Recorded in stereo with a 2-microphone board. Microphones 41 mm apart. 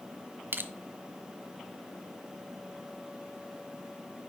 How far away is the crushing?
About 0.6 m.